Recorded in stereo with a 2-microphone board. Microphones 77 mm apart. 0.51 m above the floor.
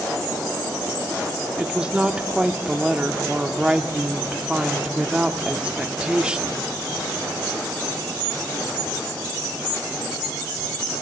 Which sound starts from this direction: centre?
A woman speaking, at 1.6 s.